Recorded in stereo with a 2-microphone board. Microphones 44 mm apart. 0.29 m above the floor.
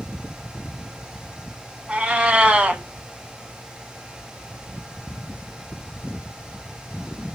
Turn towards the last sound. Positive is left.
turn(degrees=-25)  # may be behind; listen again after turning